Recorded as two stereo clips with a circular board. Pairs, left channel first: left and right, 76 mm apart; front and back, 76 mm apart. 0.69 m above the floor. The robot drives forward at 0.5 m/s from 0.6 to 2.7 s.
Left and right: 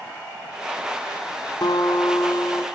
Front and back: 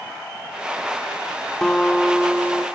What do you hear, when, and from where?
1.6 s a guitar: 80° left, 1.1 m; by 2.6 s 105° left, 1.2 m